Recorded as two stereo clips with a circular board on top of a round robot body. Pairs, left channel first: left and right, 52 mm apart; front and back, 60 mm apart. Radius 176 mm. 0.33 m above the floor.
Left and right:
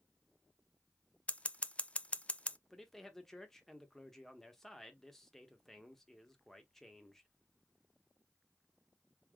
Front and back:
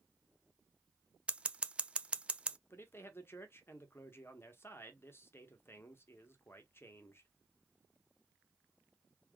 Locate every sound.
1.3 s scissors: 125° left, 0.6 m
2.7 s a man speaking: 10° left, 1.2 m